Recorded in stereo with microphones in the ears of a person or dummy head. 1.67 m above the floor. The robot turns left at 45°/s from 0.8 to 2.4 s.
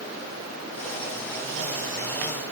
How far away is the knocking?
No knocking in this recording.